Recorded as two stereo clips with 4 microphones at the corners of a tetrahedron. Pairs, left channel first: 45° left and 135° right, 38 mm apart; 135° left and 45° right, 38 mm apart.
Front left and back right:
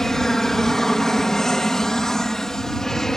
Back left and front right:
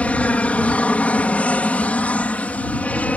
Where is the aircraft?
115° left.